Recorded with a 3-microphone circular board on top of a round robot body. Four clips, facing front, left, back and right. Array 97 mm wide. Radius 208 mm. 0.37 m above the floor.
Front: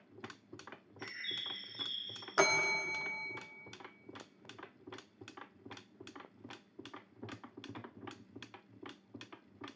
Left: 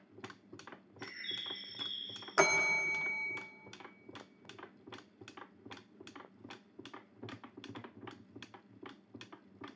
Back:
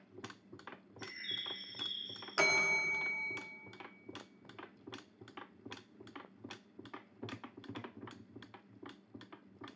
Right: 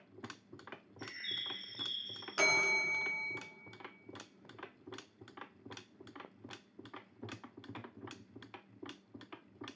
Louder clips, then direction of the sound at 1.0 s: Left 1 dB, front 2 dB; 5° left.